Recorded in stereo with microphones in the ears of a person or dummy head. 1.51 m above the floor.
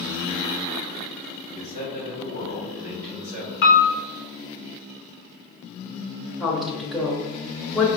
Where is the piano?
65° left (ahead or behind), 0.6 m.